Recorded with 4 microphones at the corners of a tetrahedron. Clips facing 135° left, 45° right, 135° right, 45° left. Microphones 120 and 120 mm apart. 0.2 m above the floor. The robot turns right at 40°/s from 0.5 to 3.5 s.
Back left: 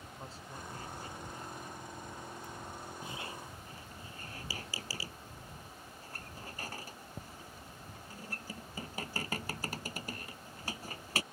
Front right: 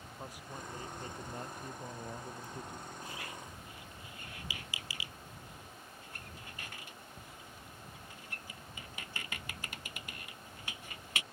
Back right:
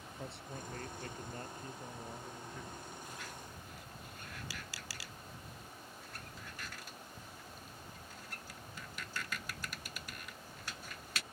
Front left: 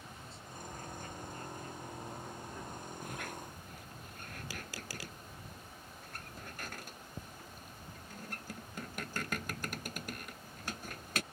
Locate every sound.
0.2 s a man speaking: 120° right; by 2.9 s 25° right
3.0 s a squeak: 65° left; by 11.2 s 85° left